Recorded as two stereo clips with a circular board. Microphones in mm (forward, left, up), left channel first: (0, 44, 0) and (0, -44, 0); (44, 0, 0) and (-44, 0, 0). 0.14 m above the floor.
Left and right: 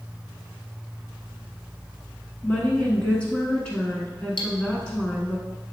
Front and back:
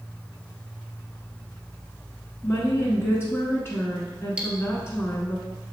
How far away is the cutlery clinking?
About 1.4 m.